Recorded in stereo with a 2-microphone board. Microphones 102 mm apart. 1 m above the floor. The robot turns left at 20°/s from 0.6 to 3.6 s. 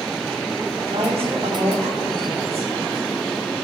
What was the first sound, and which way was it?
A woman speaking, 65° right.